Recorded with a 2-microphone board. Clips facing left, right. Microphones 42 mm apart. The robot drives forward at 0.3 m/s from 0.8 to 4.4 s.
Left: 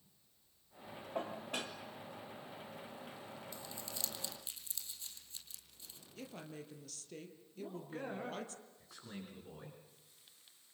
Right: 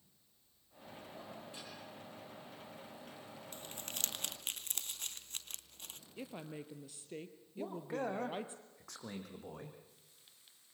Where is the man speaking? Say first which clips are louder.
Right 5 dB; 75° right (ahead or behind), 5.5 m.